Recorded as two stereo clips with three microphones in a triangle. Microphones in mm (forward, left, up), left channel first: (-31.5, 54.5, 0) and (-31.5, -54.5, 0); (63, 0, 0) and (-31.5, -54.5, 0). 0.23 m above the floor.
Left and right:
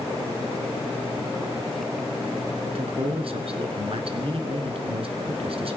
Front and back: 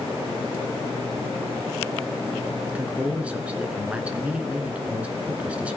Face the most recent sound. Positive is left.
turn(degrees=-75)